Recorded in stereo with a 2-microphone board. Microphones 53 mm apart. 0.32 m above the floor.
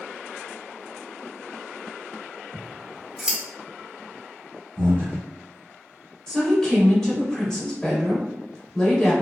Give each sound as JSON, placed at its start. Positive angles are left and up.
{"t": 2.5, "sound": "scissors", "side_deg": -10, "distance_m": 0.8}
{"t": 4.8, "sound": "breathing", "side_deg": -40, "distance_m": 1.9}
{"t": 6.3, "sound": "a woman speaking", "side_deg": 10, "distance_m": 0.9}